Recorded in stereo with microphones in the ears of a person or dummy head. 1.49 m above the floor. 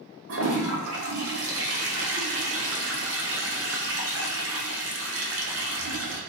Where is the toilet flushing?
75° right (ahead or behind), 1.0 m.